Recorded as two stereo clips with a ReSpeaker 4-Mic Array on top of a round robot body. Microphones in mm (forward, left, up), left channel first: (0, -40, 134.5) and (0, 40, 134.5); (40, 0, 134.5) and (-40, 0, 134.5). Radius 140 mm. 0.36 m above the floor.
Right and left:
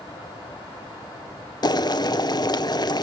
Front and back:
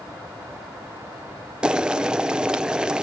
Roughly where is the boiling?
Right.